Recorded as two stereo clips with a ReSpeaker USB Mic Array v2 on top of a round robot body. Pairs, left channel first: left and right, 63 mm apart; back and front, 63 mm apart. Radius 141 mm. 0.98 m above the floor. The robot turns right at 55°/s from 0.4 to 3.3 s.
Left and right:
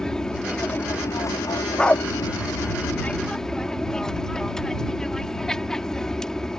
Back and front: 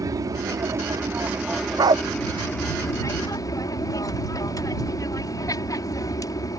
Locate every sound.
0.0 s an aircraft: 10° left; by 6.6 s 170° left
1.8 s a dog barking: 10° left; by 2.0 s 25° left